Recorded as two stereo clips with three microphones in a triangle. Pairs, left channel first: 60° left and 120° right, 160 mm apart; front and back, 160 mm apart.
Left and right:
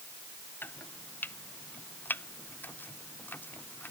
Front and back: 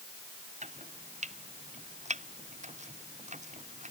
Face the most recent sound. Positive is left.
turn(degrees=140)